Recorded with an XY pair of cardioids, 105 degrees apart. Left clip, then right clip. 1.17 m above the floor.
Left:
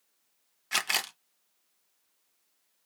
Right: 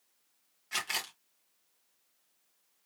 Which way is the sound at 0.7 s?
50° left.